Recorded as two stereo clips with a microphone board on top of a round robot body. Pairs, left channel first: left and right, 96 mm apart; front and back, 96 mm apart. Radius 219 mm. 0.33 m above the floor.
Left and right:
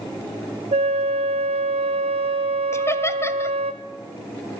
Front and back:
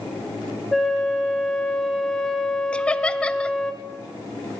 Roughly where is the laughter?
Left.